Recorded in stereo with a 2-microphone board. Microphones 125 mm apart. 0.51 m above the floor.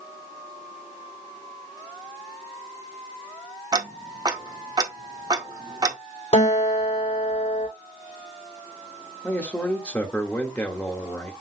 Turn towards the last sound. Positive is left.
turn(degrees=10)  # may be behind; listen again after turning